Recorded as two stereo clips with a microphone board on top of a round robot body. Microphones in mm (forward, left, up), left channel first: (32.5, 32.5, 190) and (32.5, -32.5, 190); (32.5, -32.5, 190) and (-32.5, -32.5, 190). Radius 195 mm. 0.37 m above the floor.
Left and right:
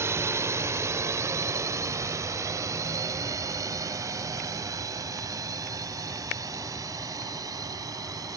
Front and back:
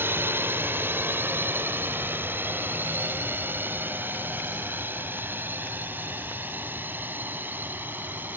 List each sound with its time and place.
0.0 s a drone: 130° right; by 8.4 s 120° right